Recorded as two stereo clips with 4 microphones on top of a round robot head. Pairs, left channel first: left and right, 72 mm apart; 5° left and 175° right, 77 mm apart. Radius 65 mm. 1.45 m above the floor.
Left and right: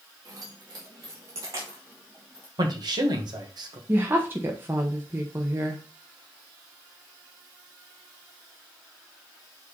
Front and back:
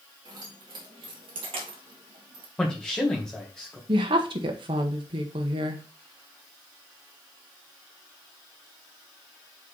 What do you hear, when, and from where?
0.2 s keys jangling: 135° right, 2.0 m; by 2.5 s 175° right, 1.0 m
2.6 s a man speaking: 80° right, 1.9 m
3.9 s a woman speaking: 155° right, 1.2 m